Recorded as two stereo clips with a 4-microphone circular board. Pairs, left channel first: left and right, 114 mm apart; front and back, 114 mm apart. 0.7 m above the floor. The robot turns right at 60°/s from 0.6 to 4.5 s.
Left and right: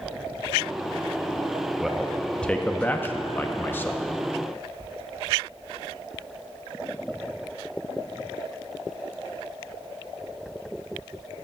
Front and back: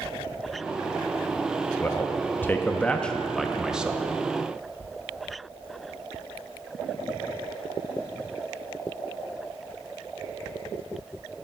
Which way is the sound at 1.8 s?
10° right.